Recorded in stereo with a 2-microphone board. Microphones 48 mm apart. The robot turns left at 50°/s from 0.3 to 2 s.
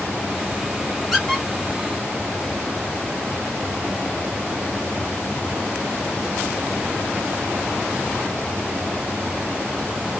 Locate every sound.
1.1 s a squeak: centre (ahead or behind), 0.9 m; by 1.4 s 15° left (ahead or behind), 0.9 m